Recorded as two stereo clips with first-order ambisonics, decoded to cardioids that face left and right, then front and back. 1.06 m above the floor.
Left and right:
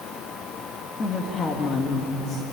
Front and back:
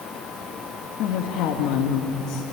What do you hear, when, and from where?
1.0 s a woman speaking: 25° left, 1.9 m